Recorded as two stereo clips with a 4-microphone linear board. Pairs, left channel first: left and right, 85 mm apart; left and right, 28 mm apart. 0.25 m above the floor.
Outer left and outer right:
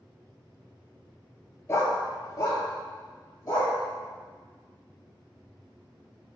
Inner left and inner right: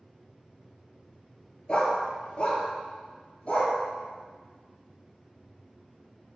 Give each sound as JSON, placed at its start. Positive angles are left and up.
{"t": 1.7, "sound": "a dog barking", "side_deg": 30, "distance_m": 1.2}